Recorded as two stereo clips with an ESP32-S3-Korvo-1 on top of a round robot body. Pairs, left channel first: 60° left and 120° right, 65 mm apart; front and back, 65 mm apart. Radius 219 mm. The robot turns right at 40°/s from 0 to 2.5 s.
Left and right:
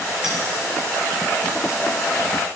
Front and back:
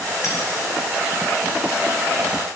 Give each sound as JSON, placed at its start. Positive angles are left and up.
{"t": 0.2, "sound": "a clink", "azimuth_deg": -40, "distance_m": 3.0}